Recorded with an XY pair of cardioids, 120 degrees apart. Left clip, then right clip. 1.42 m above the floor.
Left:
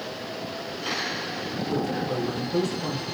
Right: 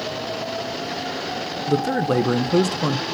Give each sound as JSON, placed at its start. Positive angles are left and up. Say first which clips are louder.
{"t": 1.7, "sound": "a man speaking", "louder": "right 8 dB", "azimuth_deg": -65, "distance_m": 0.6}